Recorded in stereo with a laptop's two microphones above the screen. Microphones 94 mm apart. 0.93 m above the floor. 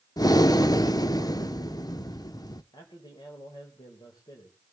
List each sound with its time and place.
0.2 s breathing: 45° left (ahead or behind), 0.7 m
2.7 s a man speaking: 55° left (ahead or behind), 3.5 m